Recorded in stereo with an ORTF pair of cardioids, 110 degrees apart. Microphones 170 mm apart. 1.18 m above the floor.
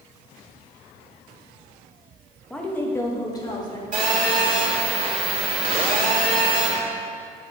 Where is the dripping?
I don't hear dripping.